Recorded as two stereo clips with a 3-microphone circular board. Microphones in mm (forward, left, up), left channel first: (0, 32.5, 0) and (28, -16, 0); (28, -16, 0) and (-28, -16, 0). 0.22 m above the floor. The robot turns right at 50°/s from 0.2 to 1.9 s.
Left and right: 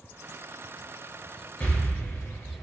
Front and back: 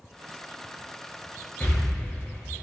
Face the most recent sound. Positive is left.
turn(degrees=85)